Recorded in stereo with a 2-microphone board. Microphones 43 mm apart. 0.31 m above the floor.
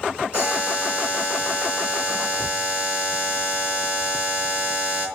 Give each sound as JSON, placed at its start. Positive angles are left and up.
{"t": 0.3, "sound": "a buzzer", "side_deg": -30, "distance_m": 5.5}